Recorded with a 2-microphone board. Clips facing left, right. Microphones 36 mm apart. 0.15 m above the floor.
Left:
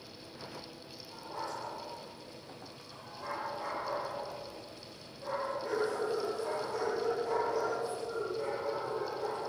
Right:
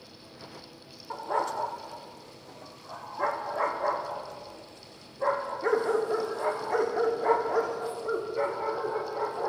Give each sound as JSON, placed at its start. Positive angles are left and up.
{"t": 1.1, "sound": "a dog barking", "side_deg": -70, "distance_m": 2.0}